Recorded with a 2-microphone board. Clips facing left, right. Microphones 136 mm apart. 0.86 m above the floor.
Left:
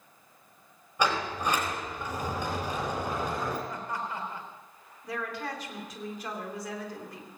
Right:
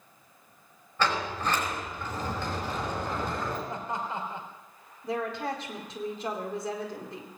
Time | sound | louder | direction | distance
1.0 | a sliding door | even | 15° left (ahead or behind) | 4 m
3.7 | laughter | right 2 dB | 20° right (ahead or behind) | 3.5 m
5.0 | a woman speaking | right 4 dB | 25° right (ahead or behind) | 2.5 m